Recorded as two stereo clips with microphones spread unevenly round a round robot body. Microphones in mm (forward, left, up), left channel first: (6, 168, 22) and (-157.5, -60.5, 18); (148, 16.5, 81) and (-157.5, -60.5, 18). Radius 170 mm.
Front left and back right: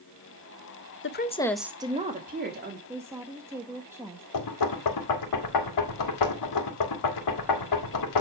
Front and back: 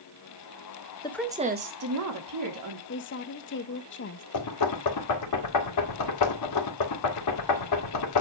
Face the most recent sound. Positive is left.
turn(degrees=55)